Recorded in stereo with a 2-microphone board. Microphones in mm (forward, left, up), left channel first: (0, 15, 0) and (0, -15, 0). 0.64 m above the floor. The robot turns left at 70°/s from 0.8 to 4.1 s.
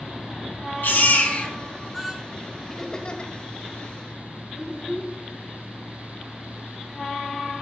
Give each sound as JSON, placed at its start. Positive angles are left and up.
{"t": 0.8, "sound": "a baby crying", "azimuth_deg": 85, "distance_m": 2.5}
{"t": 2.7, "sound": "laughter", "side_deg": 10, "distance_m": 1.9}
{"t": 4.5, "sound": "a child speaking", "side_deg": 20, "distance_m": 5.0}